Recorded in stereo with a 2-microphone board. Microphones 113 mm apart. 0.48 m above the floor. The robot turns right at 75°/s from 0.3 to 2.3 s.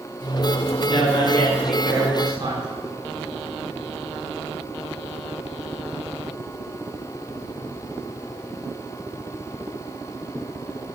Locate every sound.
0.9 s a man speaking: 115° left, 5.5 m; by 2.7 s 140° right, 5.5 m